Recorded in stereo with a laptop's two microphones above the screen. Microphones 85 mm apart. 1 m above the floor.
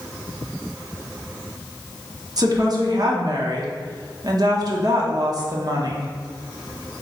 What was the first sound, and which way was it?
A woman speaking, 50° right (ahead or behind).